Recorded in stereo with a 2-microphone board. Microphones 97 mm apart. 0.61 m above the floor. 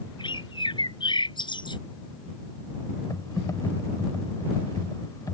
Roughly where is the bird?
Left.